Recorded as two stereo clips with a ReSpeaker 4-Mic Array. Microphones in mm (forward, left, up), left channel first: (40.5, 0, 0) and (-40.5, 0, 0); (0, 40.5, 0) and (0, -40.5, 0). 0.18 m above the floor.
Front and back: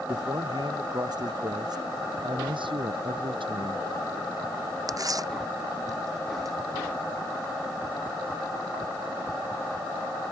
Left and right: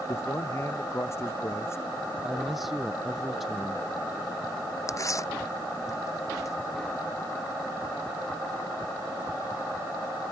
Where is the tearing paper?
140° left.